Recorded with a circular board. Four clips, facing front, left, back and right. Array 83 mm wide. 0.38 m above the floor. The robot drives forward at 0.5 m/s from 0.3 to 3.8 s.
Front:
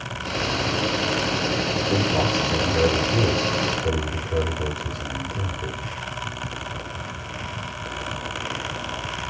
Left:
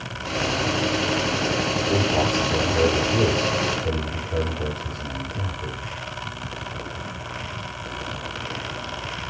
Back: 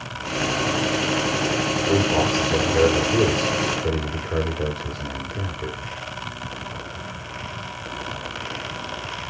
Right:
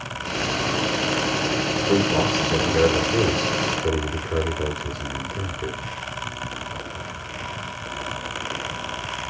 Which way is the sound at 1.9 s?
135° right.